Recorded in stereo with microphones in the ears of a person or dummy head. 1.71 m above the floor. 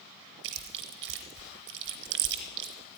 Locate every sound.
0.4 s chewing: 60° right (ahead or behind), 1.1 m